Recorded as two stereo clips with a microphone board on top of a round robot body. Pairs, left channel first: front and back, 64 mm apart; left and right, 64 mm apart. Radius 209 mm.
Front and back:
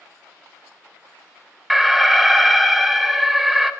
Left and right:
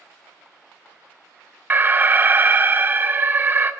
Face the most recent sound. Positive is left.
turn(degrees=-95)